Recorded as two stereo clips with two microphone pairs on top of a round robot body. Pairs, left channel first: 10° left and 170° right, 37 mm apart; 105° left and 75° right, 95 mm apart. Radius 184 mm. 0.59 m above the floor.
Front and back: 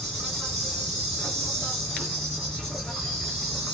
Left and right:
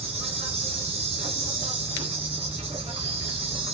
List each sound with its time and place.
0.0 s an insect: 80° right, 1.7 m